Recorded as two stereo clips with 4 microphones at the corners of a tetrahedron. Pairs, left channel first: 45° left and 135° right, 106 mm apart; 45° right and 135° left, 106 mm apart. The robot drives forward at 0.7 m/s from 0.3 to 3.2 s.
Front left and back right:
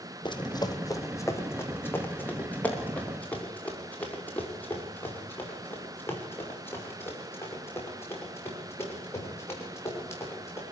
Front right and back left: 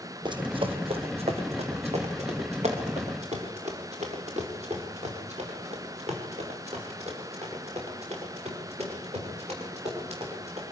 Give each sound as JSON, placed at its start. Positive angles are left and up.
{"t": 0.2, "sound": "running footsteps", "azimuth_deg": 90, "distance_m": 1.8}